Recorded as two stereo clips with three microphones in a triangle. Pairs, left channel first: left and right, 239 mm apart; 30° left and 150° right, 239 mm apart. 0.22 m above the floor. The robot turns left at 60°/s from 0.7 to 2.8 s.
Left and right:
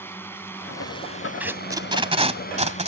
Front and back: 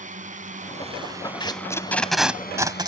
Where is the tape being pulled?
15° right; by 2.9 s 100° right.